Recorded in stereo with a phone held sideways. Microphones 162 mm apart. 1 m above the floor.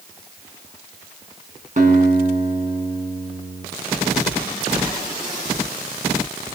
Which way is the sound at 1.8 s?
50° right (ahead or behind).